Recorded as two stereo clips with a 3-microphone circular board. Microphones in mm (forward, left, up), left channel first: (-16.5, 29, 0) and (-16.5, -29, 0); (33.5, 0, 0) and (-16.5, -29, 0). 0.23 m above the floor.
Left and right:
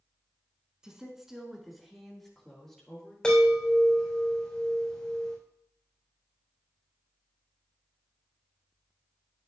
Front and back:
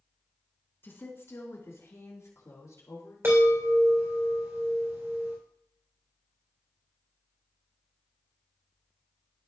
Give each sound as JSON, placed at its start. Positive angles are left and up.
{"t": 0.8, "sound": "a woman speaking", "azimuth_deg": -15, "distance_m": 2.0}
{"t": 3.2, "sound": "a chime", "azimuth_deg": 165, "distance_m": 3.0}